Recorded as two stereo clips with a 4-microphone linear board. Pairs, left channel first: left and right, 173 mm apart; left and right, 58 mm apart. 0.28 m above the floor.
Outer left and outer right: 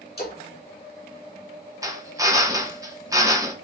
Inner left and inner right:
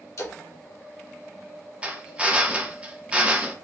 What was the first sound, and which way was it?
A splash, 65° left (ahead or behind).